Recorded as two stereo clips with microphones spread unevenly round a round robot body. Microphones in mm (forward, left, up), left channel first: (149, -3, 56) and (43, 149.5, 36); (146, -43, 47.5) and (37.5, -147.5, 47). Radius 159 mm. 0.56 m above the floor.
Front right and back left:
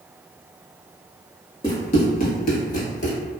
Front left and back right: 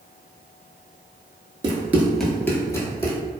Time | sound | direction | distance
1.6 | running footsteps | 100° right | 0.6 m